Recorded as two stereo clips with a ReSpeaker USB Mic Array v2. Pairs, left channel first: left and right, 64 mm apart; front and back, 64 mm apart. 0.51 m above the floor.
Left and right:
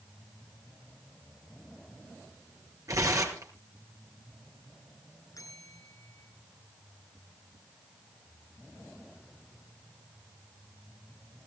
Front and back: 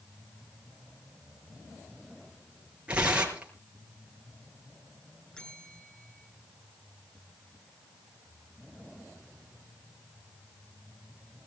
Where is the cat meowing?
No cat meowing in this recording.